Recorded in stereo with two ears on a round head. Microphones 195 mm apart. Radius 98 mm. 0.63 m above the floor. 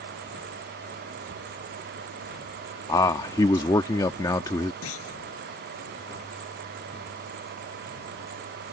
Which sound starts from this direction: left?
A clunk, at 4.8 s.